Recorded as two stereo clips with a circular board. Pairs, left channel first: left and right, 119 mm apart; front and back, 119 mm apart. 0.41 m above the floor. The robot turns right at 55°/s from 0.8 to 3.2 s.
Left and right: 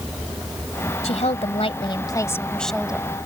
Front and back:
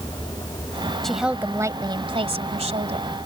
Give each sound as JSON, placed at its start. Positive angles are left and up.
{"t": 1.0, "sound": "a woman speaking", "azimuth_deg": 85}